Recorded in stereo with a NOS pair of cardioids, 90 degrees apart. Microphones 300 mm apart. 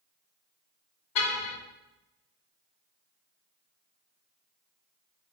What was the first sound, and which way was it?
A car horn, 65° left.